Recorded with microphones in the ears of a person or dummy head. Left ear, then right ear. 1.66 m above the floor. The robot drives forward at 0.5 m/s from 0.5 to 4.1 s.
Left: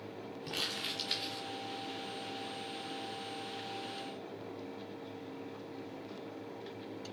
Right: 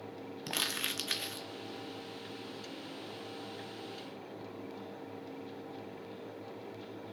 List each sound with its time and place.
0.5 s crumpling: 50° right (ahead or behind), 0.8 m; by 1.5 s 30° right (ahead or behind), 1.1 m